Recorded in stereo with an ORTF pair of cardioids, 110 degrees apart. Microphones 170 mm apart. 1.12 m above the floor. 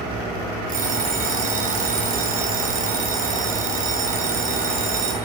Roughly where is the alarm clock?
Ahead right.